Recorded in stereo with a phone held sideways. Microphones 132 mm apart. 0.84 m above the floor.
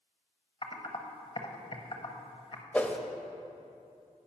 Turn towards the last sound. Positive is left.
turn(degrees=10)  # may be behind; listen again after turning